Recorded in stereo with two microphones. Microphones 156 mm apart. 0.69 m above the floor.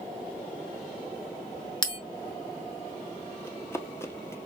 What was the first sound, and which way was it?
A bell, 30° left (ahead or behind).